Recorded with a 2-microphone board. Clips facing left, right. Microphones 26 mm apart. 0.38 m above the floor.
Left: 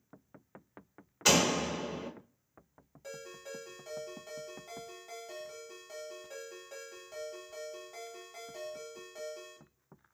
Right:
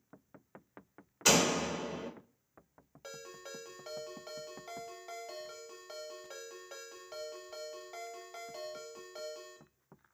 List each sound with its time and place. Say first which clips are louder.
1.2 s a door slam: left 1 dB; 5° left (ahead or behind), 0.6 m
3.0 s a ringtone: left 2 dB; 40° right (ahead or behind), 0.8 m